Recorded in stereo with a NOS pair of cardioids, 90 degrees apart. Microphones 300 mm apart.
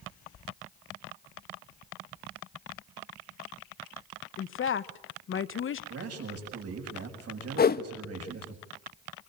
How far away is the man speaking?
About 6.5 m.